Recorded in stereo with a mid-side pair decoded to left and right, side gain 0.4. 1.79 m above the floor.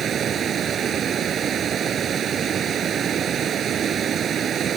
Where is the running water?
60° right.